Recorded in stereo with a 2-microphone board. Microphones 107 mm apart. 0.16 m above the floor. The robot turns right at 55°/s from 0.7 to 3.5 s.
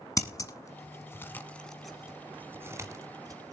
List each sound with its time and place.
0.2 s scissors: 30° left (ahead or behind), 1.0 m; by 3.5 s 30° right (ahead or behind), 1.0 m